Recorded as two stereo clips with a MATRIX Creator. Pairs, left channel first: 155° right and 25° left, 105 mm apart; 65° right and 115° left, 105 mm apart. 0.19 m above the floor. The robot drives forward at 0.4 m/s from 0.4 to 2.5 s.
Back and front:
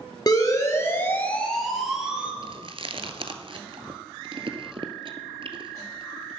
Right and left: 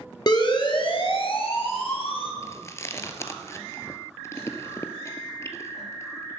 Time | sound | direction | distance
0.3 | a siren | 110° right | 2.5 m
2.4 | chewing | 5° right | 1.1 m